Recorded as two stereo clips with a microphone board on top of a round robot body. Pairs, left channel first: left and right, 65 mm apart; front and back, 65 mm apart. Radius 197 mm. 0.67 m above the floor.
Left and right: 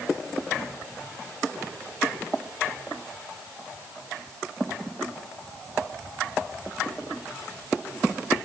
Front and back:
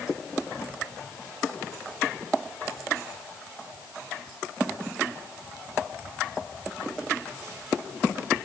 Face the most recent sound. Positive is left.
No sound to turn to.